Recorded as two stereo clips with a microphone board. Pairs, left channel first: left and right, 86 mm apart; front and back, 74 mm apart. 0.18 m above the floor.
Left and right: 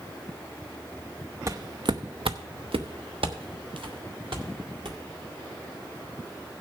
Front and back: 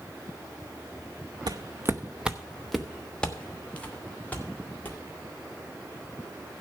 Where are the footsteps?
145° right, 0.6 m; by 5.0 s 65° right, 2.5 m.